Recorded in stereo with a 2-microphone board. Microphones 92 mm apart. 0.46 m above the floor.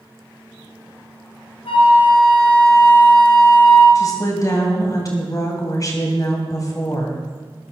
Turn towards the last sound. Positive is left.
turn(degrees=40)  # may be behind; listen again after turning